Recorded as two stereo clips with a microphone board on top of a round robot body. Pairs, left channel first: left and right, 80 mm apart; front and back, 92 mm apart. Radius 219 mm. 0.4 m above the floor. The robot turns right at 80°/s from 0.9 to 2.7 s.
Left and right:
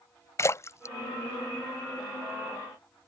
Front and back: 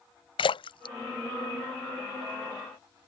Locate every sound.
0.4 s a splash: 35° left; by 2.3 s 145° left